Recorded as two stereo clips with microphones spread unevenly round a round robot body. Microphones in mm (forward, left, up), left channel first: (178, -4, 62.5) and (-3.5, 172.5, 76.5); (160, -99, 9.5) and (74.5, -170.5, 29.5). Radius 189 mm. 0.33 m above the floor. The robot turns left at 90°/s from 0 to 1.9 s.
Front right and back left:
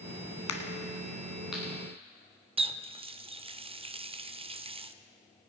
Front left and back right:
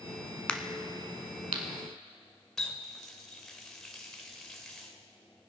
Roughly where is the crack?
Ahead right.